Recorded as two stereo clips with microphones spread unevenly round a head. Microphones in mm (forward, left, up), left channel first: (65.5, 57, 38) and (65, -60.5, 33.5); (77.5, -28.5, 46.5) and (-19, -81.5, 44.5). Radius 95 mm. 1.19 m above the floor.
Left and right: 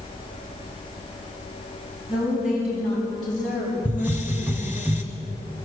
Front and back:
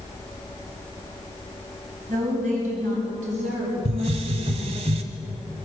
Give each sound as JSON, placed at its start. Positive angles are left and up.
{"t": 2.1, "sound": "a woman speaking", "azimuth_deg": -175, "distance_m": 9.0}
{"t": 3.9, "sound": "a hiss", "azimuth_deg": -170, "distance_m": 1.4}